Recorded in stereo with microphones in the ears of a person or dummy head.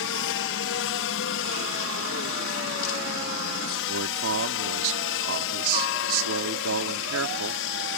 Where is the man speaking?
80° right.